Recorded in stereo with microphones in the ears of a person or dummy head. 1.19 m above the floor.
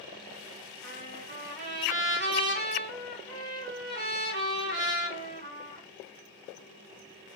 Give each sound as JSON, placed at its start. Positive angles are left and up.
{"t": 0.8, "sound": "a trumpet", "side_deg": -60, "distance_m": 1.9}